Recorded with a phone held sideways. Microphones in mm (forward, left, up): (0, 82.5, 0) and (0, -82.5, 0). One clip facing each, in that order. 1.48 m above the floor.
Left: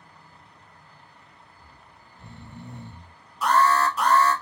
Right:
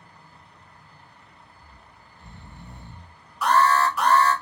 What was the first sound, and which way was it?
Snoring, 60° left (ahead or behind).